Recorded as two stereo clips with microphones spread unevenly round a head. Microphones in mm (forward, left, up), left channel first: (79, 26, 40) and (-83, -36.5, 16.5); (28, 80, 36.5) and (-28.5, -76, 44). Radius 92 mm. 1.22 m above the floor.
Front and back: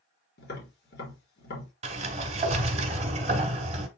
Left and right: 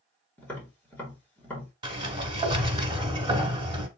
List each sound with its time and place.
0.4 s tapping: 10° right, 3 m
1.8 s a sliding door: 135° right, 1.1 m